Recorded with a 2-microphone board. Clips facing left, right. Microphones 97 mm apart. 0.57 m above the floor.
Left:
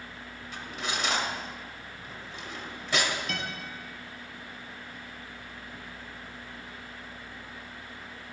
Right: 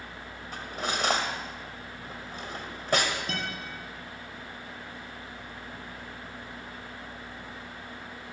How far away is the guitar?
About 3.5 m.